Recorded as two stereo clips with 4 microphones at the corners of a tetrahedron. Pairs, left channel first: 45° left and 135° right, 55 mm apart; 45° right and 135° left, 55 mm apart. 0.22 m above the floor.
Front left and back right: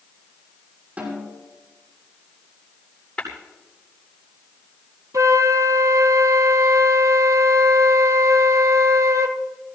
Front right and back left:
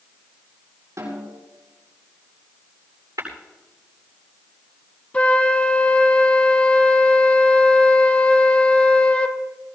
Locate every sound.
1.0 s a snare drum: 160° left, 7 m
3.2 s tapping: 115° left, 8.5 m
5.1 s a flute: 110° right, 1.3 m